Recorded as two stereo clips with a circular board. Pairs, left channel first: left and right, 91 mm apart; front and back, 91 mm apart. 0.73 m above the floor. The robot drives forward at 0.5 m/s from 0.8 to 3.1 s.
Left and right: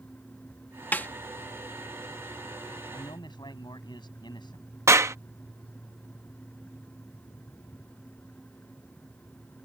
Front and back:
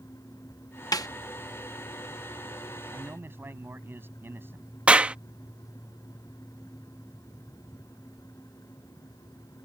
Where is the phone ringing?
No phone ringing in this recording.